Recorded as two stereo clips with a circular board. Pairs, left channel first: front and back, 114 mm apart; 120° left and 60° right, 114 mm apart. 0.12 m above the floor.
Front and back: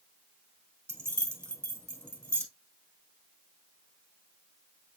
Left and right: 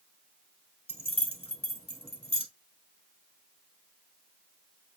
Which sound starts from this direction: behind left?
Keys jangling, at 0.9 s.